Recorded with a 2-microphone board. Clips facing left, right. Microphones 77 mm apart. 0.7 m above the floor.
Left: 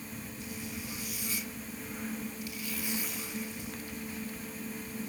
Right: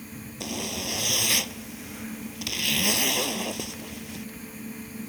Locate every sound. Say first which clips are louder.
0.4 s a zipper: right 11 dB; 80° right